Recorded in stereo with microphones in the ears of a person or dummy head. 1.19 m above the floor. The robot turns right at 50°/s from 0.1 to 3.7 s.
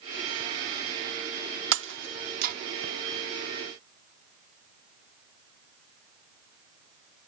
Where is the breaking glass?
80° right; by 2.5 s 55° right (ahead or behind).